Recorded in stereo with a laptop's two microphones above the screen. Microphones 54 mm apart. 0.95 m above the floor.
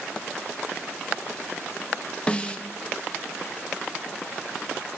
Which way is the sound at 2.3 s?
20° left (ahead or behind).